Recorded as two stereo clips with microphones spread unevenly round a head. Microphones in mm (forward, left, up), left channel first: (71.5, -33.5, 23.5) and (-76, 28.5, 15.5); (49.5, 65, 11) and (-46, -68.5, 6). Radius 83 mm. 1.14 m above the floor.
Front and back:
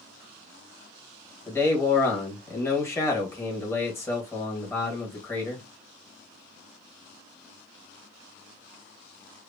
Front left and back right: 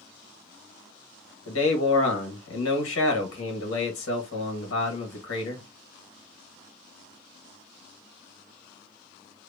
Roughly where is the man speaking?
Ahead left.